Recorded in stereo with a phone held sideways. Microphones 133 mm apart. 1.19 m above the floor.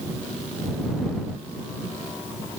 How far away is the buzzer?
No buzzer in this recording.